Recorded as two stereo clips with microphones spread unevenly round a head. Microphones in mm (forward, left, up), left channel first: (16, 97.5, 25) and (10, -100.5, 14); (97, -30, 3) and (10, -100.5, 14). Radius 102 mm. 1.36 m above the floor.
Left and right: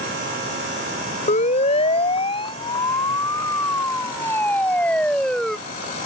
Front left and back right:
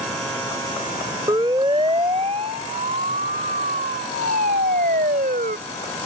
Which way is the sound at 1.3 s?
145° left.